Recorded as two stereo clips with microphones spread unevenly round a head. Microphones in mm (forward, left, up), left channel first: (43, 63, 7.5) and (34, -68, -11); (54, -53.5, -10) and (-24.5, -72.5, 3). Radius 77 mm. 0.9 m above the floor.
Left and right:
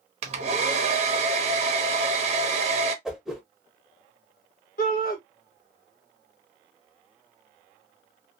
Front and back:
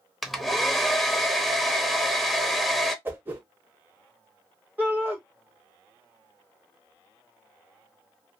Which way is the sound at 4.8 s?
115° left.